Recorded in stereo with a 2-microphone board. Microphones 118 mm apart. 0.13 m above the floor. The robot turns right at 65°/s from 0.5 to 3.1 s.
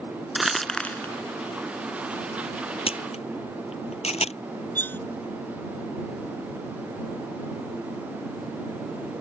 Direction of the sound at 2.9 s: 60° left (ahead or behind).